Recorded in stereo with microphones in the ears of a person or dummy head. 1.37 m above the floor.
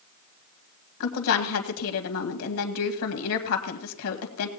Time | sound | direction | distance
1.0 | a woman speaking | 75° left (ahead or behind) | 1.9 m